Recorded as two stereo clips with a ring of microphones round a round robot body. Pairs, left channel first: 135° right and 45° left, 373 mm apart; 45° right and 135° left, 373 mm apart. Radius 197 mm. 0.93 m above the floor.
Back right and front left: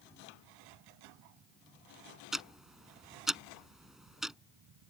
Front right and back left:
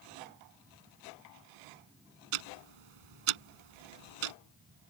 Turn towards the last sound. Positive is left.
turn(degrees=135)